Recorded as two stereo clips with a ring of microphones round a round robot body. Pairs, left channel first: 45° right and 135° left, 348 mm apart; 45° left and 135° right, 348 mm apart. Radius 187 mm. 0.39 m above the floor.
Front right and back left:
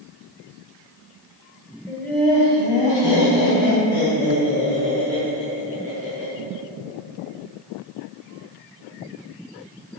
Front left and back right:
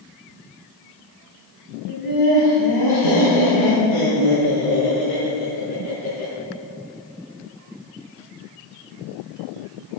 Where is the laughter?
45° left, 3 m; by 6.3 s 25° left, 8 m.